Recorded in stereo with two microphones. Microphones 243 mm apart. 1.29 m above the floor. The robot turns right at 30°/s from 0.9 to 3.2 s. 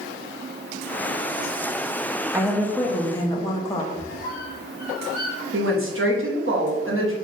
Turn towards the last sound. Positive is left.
turn(degrees=-60)  # may be behind; listen again after turning